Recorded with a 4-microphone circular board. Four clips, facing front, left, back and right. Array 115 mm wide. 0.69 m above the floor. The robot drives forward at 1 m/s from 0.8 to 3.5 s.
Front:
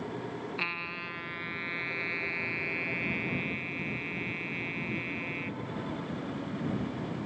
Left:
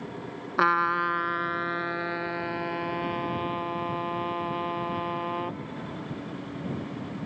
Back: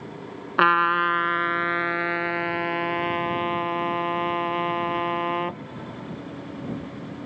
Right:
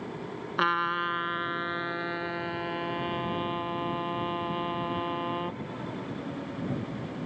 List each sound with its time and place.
0.6 s a trumpet: 160° left; by 5.6 s 170° left